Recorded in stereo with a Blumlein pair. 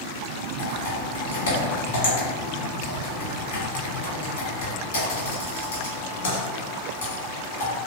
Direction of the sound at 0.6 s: 60° left.